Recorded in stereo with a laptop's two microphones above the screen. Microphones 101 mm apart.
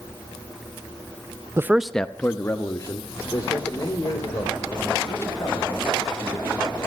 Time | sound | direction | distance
1.6 | a man speaking | 30° right (ahead or behind) | 0.5 m